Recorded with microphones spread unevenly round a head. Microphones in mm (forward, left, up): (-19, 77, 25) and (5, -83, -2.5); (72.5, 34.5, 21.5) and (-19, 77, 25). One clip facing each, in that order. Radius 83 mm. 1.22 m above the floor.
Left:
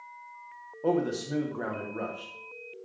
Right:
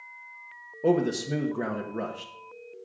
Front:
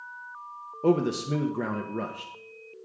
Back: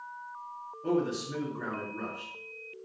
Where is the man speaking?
20° right, 1.0 m.